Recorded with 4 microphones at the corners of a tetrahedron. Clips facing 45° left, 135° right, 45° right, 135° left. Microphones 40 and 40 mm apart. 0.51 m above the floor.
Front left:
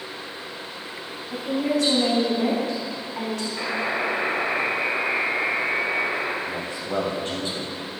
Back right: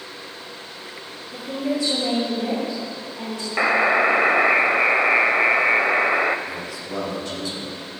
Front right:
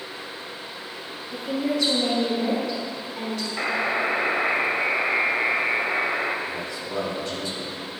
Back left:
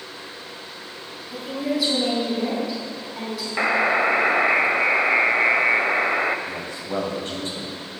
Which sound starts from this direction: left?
A man speaking, at 6.5 s.